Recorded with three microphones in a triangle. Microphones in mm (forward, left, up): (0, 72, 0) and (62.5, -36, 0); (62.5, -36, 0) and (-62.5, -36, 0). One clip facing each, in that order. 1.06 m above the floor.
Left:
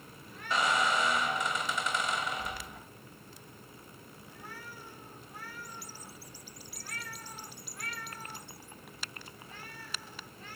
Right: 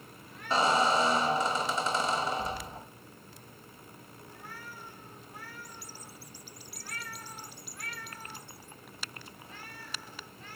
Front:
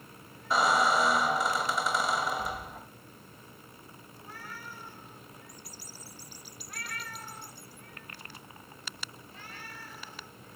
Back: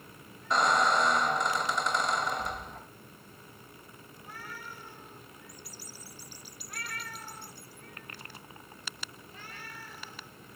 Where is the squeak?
85° right, 1.0 m.